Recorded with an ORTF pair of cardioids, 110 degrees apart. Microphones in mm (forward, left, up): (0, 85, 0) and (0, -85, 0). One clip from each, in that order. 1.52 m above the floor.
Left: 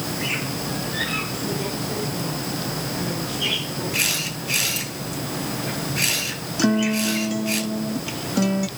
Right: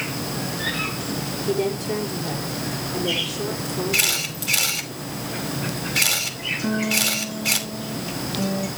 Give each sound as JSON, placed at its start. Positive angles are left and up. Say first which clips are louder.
{"t": 1.5, "sound": "a woman speaking", "louder": "right 4 dB", "azimuth_deg": -70, "distance_m": 5.0}
{"t": 3.9, "sound": "a camera shutter", "louder": "right 1 dB", "azimuth_deg": -70, "distance_m": 5.0}
{"t": 6.6, "sound": "a guitar", "louder": "left 2 dB", "azimuth_deg": 50, "distance_m": 1.2}